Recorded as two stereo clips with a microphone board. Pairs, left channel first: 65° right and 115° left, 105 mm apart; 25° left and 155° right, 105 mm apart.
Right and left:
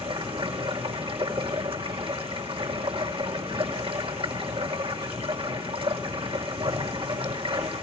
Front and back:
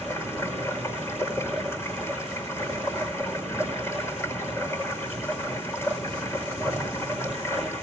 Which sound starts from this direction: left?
Running water, at 0.0 s.